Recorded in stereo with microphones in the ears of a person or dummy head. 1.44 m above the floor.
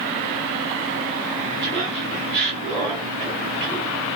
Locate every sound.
1.6 s laughter: 70° right (ahead or behind), 1.2 m; by 4.0 s 20° right (ahead or behind), 2.5 m